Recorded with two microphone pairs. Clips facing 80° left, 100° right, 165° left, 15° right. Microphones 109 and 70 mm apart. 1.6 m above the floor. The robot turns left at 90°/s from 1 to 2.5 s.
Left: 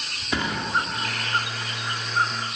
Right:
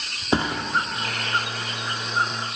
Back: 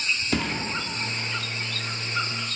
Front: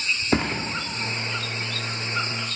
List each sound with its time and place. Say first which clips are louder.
0.3 s a thud: right 4 dB, front 5 dB; 60° right, 1.5 m